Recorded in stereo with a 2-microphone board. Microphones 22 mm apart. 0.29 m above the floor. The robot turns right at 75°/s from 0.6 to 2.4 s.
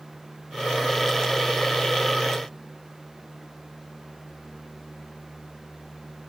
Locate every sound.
Only background noise.